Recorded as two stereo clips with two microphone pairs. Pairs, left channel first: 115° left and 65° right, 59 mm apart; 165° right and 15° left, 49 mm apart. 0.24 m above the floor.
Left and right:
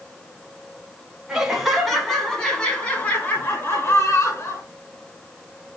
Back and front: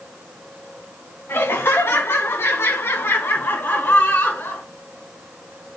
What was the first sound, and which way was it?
Laughter, 145° right.